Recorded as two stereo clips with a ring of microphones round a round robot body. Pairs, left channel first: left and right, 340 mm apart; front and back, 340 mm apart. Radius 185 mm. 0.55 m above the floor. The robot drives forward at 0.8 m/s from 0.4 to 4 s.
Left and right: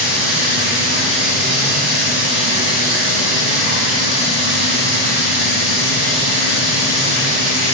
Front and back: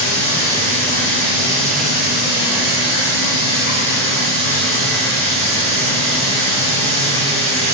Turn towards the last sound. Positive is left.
turn(degrees=-110)